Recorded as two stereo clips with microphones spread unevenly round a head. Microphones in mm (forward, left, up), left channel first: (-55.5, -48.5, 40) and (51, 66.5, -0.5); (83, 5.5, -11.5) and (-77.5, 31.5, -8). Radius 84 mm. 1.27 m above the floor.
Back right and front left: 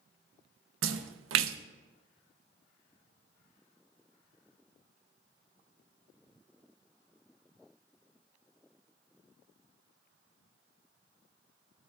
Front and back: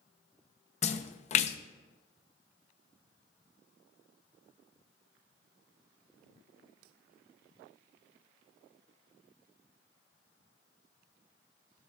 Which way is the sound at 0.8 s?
35° left.